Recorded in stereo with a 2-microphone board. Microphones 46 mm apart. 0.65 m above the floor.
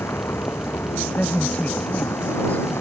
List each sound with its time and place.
0.0 s a vehicle: 70° left (ahead or behind); by 2.8 s 80° left
1.1 s a woman speaking: 35° left (ahead or behind)